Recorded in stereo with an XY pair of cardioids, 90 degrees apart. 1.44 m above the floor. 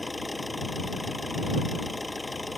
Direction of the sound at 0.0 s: 10° left.